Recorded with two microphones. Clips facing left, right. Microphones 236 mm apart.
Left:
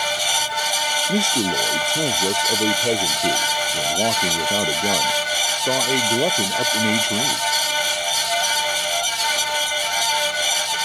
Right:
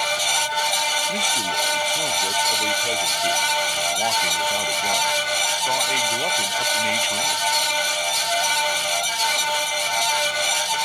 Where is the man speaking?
50° left (ahead or behind).